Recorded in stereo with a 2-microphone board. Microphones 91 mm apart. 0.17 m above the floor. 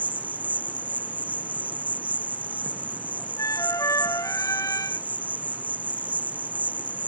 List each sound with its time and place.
0.0 s an insect: 15° right (ahead or behind)
3.4 s a flute: 40° left (ahead or behind)